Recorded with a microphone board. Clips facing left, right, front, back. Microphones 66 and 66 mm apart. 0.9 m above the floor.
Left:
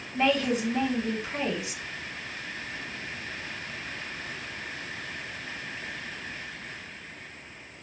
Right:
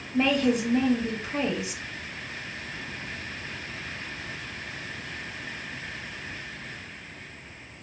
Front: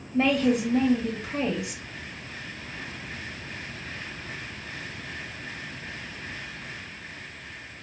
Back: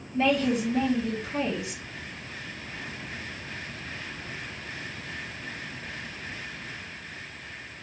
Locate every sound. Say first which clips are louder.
0.1 s a woman speaking: right 2 dB, front 2 dB; 35° right, 1.3 m